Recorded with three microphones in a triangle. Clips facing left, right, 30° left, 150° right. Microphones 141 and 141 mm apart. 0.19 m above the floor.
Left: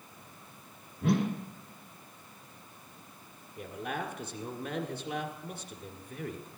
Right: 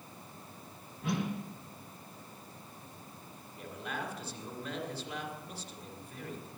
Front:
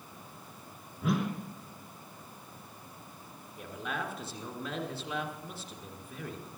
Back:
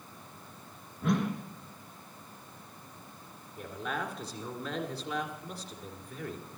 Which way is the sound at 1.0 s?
115° left.